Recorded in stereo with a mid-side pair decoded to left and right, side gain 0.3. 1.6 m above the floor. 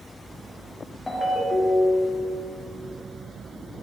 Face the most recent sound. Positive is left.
turn(degrees=40)